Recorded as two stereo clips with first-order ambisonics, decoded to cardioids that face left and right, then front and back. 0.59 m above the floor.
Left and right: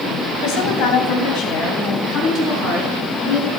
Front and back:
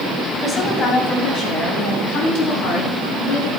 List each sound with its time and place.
0.4 s a woman speaking: 70° left, 3 m; by 3.5 s 30° left, 6 m